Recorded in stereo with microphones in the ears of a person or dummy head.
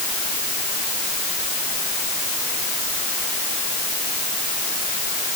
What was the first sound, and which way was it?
Only background noise.